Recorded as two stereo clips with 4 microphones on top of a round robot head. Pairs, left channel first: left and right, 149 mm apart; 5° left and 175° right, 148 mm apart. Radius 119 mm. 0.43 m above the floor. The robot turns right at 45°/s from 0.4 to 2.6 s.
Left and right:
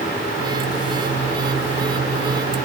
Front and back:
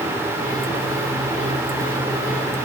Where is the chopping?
No chopping in this recording.